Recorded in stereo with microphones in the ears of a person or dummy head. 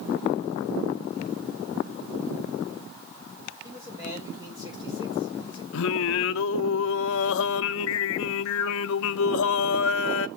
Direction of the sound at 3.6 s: 10° right (ahead or behind).